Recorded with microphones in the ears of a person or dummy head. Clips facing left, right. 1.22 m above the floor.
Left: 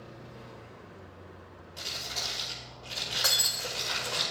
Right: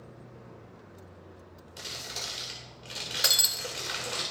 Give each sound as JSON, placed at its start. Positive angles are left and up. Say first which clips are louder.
{"t": 1.8, "sound": "crumpling", "louder": "left 1 dB", "side_deg": -25, "distance_m": 2.0}
{"t": 3.2, "sound": "breaking glass", "louder": "right 1 dB", "side_deg": -35, "distance_m": 0.7}